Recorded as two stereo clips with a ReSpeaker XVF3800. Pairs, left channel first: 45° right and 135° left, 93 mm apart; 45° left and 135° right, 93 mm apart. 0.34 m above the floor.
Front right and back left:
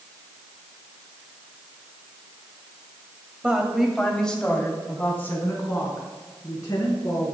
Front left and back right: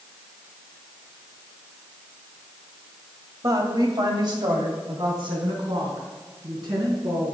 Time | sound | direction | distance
3.4 | a woman speaking | 155° right | 1.6 m